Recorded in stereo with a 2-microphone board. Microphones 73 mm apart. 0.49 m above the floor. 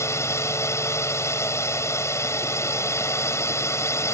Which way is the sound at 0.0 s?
40° left (ahead or behind).